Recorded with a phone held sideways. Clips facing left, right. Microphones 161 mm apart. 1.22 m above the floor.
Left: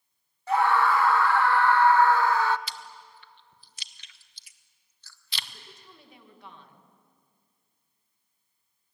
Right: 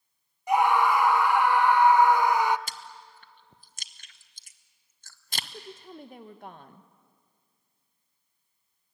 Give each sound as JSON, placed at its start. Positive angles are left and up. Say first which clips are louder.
{"t": 0.5, "sound": "a scream", "louder": "right 1 dB", "side_deg": -15, "distance_m": 0.9}
{"t": 2.7, "sound": "chewing", "louder": "even", "side_deg": -45, "distance_m": 1.1}
{"t": 5.4, "sound": "a woman speaking", "louder": "right 8 dB", "side_deg": -50, "distance_m": 1.4}